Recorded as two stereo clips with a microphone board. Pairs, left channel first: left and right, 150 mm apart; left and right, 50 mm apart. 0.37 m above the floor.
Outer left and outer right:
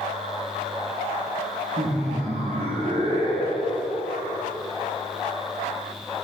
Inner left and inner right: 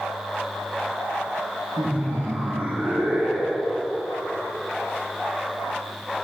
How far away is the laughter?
About 4 m.